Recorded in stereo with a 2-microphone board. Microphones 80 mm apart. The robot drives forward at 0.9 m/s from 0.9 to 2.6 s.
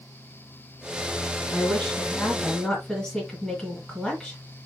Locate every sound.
1.5 s a woman speaking: 5° left (ahead or behind), 2.5 m